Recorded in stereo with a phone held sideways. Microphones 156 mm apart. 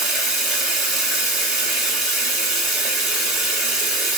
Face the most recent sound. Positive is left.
turn(degrees=0)  # may be behind; listen again after turning